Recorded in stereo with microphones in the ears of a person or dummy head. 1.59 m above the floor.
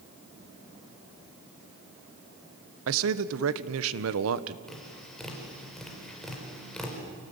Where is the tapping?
5° left (ahead or behind), 5.5 m.